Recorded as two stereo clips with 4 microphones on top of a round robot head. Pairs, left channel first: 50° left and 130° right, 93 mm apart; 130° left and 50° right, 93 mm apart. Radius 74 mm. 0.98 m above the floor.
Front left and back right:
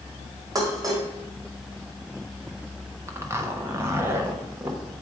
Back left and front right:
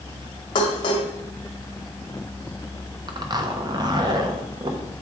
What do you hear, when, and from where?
0.6 s dishes clattering: 170° left, 1.3 m
3.1 s a zipper: 75° right, 1.1 m